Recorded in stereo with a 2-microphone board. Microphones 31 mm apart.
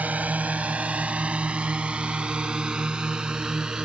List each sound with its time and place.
0.0 s a drone: 50° right (ahead or behind); by 3.9 s 25° right (ahead or behind)